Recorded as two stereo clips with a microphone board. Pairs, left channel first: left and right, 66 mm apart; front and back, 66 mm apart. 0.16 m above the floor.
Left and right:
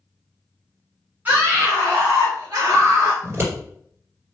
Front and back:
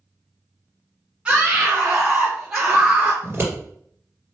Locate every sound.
1.2 s a scream: 120° right, 1.9 m; by 3.1 s 115° right, 2.5 m
3.2 s scissors: 135° right, 2 m